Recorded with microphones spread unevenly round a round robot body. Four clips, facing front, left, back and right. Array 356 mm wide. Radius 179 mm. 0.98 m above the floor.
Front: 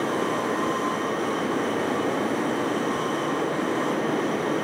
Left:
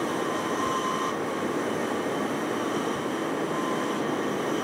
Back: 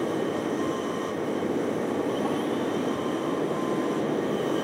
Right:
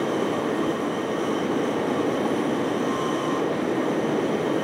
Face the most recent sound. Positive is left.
No sound to turn to.